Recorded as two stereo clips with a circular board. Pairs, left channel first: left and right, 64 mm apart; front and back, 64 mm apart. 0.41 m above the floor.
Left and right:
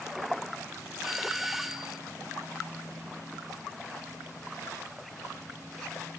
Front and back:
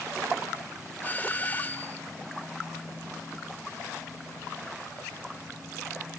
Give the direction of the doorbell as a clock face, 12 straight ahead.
12 o'clock.